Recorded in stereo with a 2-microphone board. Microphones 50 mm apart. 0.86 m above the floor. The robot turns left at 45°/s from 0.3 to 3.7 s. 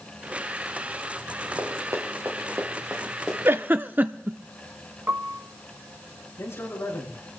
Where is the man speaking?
70° left (ahead or behind), 8.5 m.